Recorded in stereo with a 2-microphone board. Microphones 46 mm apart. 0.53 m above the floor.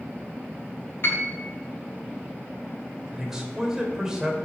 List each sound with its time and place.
1.0 s a piano: 50° left (ahead or behind), 1.6 m
3.1 s a man speaking: 5° right (ahead or behind), 2.5 m